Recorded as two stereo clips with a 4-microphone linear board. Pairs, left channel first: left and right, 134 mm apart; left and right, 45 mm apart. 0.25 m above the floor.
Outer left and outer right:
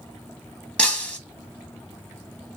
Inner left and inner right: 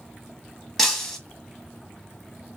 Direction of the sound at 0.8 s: 10° left (ahead or behind).